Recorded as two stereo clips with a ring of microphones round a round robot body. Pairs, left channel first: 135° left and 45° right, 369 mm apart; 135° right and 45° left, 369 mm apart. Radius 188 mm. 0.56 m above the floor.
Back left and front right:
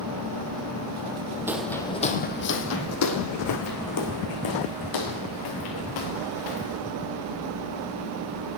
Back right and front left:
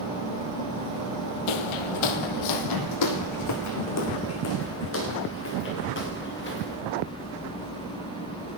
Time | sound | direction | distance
1.5 | footsteps | 130° right | 1.3 m